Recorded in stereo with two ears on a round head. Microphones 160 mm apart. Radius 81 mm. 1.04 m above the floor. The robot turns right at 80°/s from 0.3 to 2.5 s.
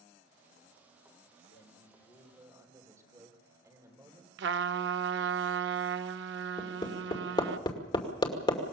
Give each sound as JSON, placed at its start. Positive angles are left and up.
{"t": 1.5, "sound": "a man speaking", "azimuth_deg": 120, "distance_m": 4.0}
{"t": 4.4, "sound": "a trumpet", "side_deg": -65, "distance_m": 0.6}
{"t": 6.6, "sound": "hammering", "side_deg": 25, "distance_m": 2.5}